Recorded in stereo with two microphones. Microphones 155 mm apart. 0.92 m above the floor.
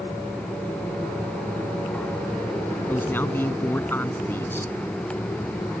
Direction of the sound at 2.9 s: 15° left (ahead or behind).